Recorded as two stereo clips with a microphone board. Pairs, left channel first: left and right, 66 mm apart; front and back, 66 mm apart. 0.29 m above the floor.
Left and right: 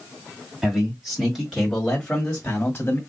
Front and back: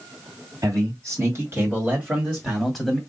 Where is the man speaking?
165° right, 2 m; by 3.0 s 85° left, 1.6 m.